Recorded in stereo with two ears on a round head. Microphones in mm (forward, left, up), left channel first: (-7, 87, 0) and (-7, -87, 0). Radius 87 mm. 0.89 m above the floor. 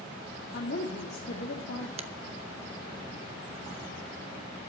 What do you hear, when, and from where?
0.5 s a woman speaking: 60° left (ahead or behind), 2.5 m
2.0 s a finger snap: 35° right (ahead or behind), 1.0 m